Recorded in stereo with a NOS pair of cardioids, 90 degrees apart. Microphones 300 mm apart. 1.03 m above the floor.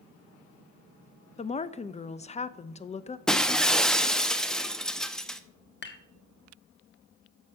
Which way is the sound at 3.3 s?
Straight ahead.